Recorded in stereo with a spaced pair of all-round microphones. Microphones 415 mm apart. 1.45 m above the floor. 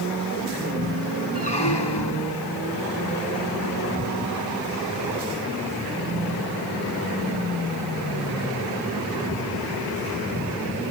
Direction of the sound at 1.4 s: 70° left (ahead or behind).